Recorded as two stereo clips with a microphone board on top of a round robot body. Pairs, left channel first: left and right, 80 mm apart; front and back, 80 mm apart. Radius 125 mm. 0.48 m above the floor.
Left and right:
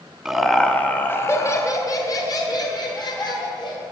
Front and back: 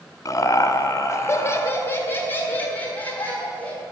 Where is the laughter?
5° right, 1.0 m; by 3.8 s 70° left, 2.5 m.